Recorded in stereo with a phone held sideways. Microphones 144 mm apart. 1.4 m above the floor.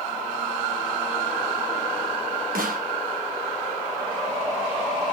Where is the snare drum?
85° right, 3 m.